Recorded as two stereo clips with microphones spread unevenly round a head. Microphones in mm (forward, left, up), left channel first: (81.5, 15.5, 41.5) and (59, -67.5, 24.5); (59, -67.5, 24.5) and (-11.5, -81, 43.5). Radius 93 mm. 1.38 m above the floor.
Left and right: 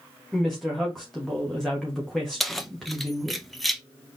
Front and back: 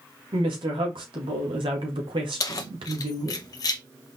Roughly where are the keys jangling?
Ahead.